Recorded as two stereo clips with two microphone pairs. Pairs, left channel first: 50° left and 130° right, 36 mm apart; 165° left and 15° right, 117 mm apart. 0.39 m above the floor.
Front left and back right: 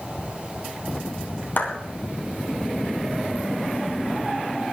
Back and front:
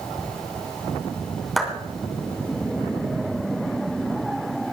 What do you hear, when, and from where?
1.6 s a clap: 75° left, 3 m